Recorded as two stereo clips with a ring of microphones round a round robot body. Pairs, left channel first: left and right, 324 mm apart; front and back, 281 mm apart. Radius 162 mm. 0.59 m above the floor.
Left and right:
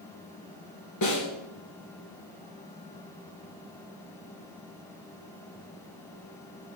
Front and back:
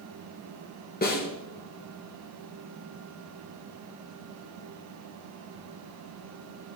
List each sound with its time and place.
1.0 s a snare drum: 55° left, 2.5 m